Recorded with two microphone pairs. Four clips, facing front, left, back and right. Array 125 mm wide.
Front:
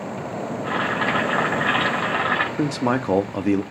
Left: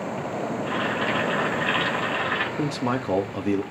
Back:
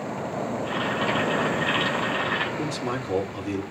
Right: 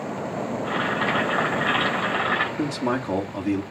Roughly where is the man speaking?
Ahead.